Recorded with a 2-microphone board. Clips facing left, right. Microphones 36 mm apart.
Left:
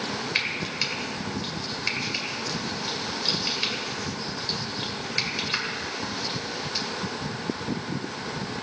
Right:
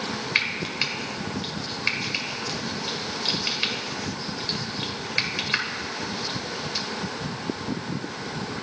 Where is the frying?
20° right (ahead or behind), 1.7 m.